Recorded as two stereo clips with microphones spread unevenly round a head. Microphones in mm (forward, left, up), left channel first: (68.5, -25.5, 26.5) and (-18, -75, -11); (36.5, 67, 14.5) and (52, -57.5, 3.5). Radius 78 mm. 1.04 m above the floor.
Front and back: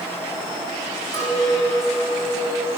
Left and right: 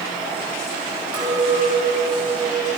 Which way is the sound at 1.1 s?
125° right.